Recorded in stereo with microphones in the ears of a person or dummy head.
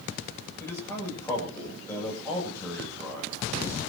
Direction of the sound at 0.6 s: 15° left (ahead or behind).